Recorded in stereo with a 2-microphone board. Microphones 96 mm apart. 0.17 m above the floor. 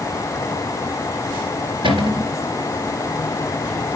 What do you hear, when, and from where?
1.8 s a cupboard door: 65° right (ahead or behind), 2.5 m